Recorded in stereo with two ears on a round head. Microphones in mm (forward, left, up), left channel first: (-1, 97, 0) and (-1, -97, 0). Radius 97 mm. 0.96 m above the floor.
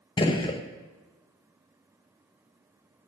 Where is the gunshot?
20° left (ahead or behind), 0.6 m.